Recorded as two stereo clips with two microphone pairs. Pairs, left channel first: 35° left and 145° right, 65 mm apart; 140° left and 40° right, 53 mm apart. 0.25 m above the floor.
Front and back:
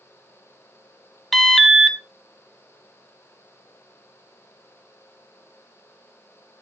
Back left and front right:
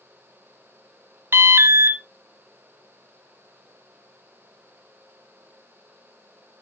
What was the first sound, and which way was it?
An alarm, 55° right.